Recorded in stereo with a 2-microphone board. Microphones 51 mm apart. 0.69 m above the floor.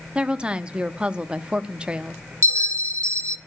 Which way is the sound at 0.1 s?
20° right (ahead or behind).